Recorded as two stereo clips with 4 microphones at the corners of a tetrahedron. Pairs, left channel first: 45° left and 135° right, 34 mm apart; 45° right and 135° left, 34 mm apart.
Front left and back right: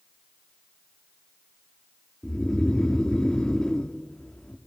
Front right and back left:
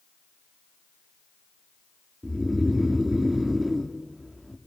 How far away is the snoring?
About 1.0 m.